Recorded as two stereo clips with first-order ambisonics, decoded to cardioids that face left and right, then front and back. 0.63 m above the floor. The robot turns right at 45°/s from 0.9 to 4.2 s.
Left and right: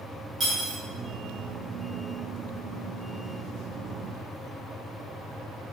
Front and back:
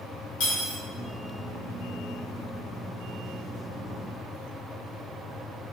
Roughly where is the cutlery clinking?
Ahead.